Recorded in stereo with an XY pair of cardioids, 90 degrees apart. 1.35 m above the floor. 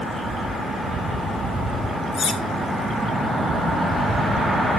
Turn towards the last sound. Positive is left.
turn(degrees=65)